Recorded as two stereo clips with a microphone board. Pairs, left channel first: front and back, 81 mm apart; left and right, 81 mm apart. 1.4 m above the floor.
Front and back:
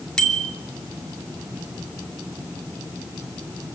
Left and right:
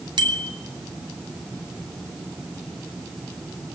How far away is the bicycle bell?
About 3 m.